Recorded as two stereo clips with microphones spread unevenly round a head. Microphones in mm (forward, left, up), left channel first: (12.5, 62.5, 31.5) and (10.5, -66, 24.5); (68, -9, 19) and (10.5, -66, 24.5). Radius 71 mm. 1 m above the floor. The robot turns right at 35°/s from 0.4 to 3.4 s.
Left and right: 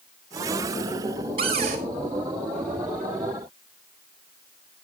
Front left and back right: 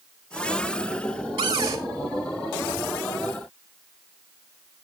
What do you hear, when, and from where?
1.4 s a cupboard door: 140° right, 3 m; by 1.8 s 125° right, 3 m